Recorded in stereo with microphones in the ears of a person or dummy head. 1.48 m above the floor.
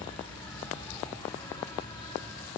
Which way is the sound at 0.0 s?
25° left (ahead or behind).